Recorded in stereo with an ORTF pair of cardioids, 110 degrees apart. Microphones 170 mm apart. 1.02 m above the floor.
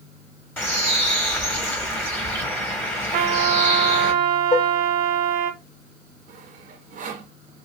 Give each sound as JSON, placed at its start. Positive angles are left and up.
{"t": 0.6, "sound": "a bird", "azimuth_deg": 10, "distance_m": 1.5}
{"t": 3.1, "sound": "a trumpet", "azimuth_deg": -65, "distance_m": 1.2}
{"t": 4.5, "sound": "dishes clattering", "azimuth_deg": 30, "distance_m": 1.6}
{"t": 6.3, "sound": "sawing", "azimuth_deg": -50, "distance_m": 1.0}